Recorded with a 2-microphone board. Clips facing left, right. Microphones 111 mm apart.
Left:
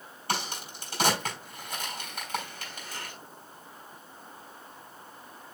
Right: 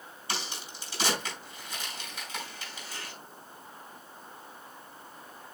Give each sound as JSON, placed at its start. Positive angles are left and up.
{"t": 0.3, "sound": "a crack", "side_deg": 50, "distance_m": 4.5}